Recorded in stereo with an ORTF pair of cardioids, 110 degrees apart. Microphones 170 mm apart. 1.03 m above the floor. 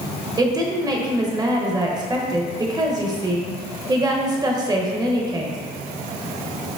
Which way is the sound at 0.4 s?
25° right.